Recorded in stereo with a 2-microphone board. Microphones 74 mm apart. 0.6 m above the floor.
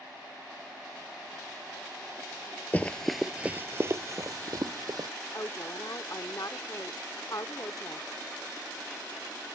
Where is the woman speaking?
50° left (ahead or behind).